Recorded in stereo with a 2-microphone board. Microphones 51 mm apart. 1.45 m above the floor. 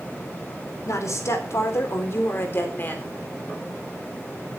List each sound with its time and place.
0.8 s a woman speaking: 75° left (ahead or behind), 4 m; by 3.2 s 35° left (ahead or behind), 4 m